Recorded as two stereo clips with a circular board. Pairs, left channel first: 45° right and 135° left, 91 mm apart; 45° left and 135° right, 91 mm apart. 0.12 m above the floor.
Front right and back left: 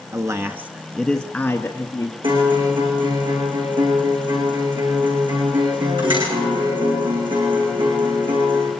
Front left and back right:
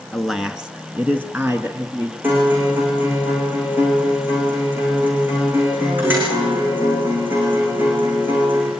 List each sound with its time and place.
0.1 s a man speaking: 135° left, 1.7 m; by 2.1 s 80° right, 2 m
2.2 s a guitar: 155° left, 9 m